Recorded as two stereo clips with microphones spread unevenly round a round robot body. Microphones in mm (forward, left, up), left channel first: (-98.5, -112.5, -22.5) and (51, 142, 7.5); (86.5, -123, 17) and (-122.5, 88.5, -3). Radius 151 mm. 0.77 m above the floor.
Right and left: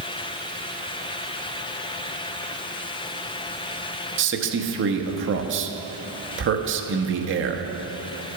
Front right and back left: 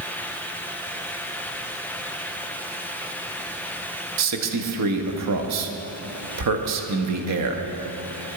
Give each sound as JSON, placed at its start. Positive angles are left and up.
{"t": 4.2, "sound": "a man speaking", "azimuth_deg": 110, "distance_m": 0.9}